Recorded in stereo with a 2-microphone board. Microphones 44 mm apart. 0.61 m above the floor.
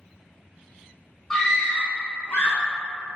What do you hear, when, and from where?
1.3 s a scream: 15° left (ahead or behind), 1.8 m; by 2.6 s 60° left (ahead or behind), 2 m